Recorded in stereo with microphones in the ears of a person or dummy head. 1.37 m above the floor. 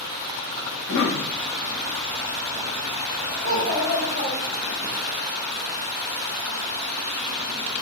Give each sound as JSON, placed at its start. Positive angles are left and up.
{"t": 0.7, "sound": "a cough", "side_deg": 70, "distance_m": 0.7}
{"t": 3.4, "sound": "a child speaking", "side_deg": -45, "distance_m": 1.0}